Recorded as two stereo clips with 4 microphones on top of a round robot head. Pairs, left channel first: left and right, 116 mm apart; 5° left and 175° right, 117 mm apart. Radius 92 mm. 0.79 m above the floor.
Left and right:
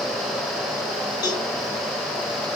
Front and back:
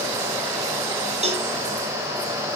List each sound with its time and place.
1.2 s a cowbell: 155° left, 1.7 m